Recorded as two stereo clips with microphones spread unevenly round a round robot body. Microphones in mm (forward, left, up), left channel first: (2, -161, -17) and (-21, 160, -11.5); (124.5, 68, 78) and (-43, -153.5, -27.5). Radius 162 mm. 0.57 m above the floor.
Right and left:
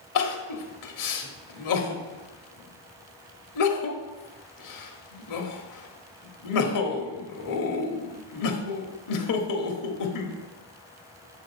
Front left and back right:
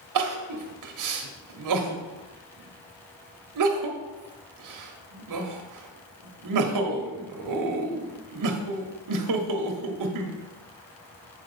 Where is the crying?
120° right, 1.1 m.